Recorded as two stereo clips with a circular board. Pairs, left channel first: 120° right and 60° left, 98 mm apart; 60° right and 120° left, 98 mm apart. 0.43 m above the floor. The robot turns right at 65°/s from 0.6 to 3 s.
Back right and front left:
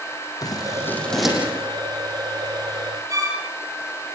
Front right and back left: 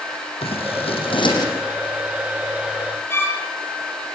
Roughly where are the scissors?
Right.